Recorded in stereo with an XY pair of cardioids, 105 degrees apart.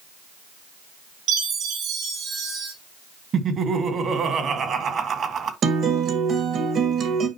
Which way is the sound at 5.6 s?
55° right.